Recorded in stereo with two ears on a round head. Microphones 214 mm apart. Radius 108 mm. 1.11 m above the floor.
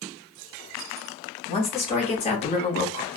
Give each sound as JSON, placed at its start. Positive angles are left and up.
{"t": 1.5, "sound": "a woman speaking", "side_deg": 25, "distance_m": 1.6}